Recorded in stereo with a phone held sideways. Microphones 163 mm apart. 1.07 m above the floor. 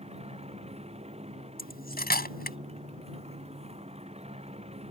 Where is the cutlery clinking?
80° left.